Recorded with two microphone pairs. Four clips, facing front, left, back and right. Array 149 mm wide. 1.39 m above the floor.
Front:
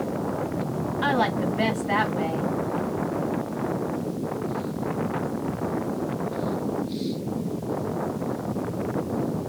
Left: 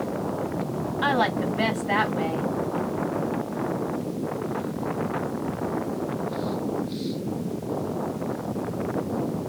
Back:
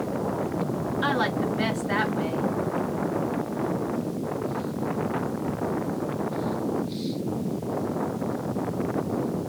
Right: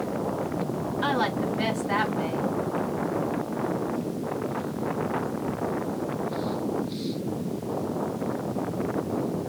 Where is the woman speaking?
70° left, 2 m.